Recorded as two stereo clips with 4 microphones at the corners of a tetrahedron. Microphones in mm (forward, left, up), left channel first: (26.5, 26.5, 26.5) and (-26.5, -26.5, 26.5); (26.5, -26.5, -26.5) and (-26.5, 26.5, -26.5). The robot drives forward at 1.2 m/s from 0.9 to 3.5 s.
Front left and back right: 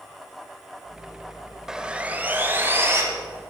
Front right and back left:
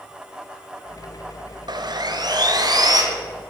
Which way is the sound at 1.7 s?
140° left.